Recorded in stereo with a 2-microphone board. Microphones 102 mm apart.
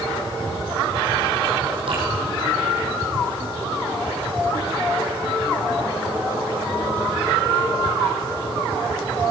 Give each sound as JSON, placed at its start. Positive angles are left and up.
{"t": 1.9, "sound": "dripping", "side_deg": -55, "distance_m": 4.0}